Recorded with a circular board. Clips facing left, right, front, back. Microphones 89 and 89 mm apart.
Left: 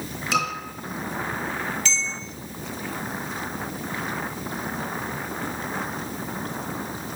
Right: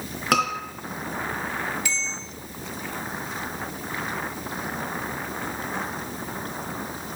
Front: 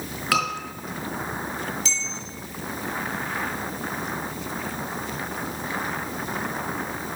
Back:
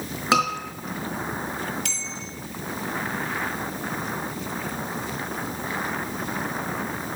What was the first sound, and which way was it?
A scream, 115° right.